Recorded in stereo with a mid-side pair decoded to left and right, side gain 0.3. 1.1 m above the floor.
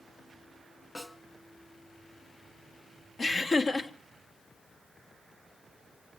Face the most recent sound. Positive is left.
turn(degrees=55)